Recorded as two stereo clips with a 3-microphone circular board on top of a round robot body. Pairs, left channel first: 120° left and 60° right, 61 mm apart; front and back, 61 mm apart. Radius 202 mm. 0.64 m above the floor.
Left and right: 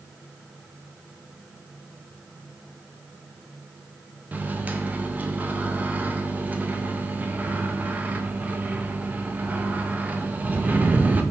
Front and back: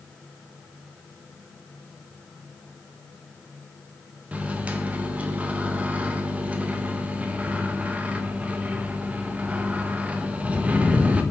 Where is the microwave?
115° right, 0.6 m.